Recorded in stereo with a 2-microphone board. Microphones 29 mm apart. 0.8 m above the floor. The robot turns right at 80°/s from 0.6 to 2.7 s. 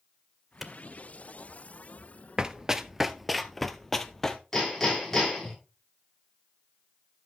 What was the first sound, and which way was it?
A clap, 10° right (ahead or behind).